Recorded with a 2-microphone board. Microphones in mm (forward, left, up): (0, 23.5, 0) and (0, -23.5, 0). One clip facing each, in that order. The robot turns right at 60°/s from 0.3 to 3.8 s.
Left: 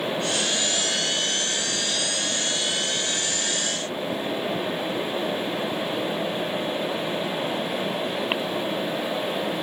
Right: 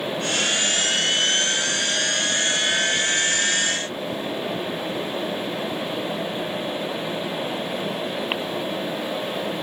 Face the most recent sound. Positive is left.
No sound to turn to.